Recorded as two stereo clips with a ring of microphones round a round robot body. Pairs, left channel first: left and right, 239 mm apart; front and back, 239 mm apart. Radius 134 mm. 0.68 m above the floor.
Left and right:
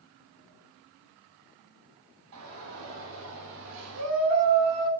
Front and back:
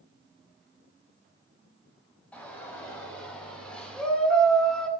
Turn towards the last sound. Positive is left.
turn(degrees=-85)